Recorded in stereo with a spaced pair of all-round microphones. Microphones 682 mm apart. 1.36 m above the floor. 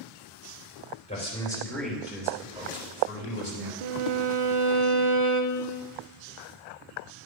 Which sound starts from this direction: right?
A violin, at 3.8 s.